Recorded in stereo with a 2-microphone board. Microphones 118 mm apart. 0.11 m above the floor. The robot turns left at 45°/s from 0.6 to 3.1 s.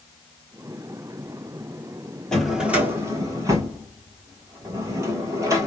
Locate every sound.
2.3 s a drawer: 5° left (ahead or behind), 0.8 m; by 5.7 s 25° right (ahead or behind), 0.8 m